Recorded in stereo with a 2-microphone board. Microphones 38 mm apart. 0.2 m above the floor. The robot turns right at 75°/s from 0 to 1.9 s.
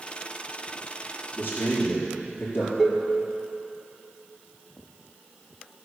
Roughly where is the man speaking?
Ahead left.